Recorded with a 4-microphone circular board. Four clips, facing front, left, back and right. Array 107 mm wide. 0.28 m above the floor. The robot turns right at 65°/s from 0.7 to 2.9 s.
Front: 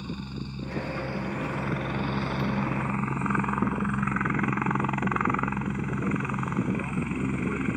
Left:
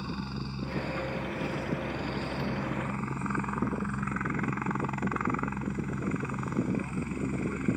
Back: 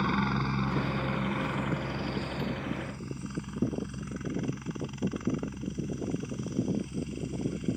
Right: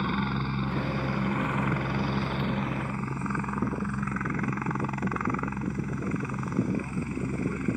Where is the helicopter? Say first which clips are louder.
Right 7 dB, back 8 dB; 145° right; by 7.8 s straight ahead.